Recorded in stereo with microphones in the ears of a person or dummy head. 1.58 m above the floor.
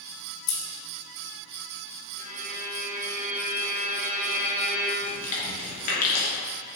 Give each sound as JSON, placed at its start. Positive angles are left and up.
{"t": 0.5, "sound": "scissors", "side_deg": 65, "distance_m": 2.5}
{"t": 2.2, "sound": "a violin", "side_deg": -40, "distance_m": 2.0}
{"t": 5.0, "sound": "chewing", "side_deg": 55, "distance_m": 2.5}